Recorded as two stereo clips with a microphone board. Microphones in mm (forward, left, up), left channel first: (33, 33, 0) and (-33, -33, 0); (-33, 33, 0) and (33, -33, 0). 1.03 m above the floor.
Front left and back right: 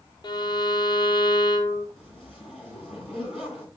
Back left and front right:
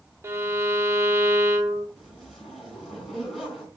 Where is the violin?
15° left, 0.9 m.